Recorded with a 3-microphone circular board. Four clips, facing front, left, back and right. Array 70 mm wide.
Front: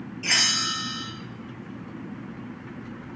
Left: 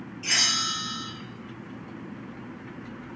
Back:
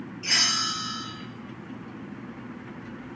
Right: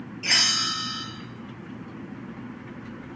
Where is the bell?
50° right, 3 m.